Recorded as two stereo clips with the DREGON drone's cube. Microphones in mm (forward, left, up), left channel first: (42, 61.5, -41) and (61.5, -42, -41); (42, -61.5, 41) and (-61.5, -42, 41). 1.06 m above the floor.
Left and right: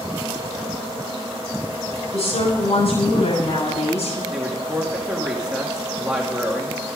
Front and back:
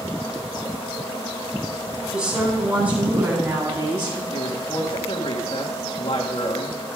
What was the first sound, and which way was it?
A woman speaking, 90° left.